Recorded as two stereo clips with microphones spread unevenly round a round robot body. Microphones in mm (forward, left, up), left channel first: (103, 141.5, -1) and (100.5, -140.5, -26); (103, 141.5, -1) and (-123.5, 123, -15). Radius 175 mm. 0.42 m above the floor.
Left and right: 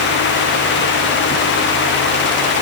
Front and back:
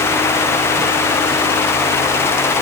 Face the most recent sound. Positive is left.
No sound to turn to.